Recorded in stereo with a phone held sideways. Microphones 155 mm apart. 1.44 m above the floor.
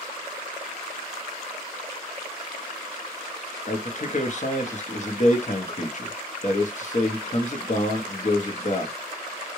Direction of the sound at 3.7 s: 50° left (ahead or behind).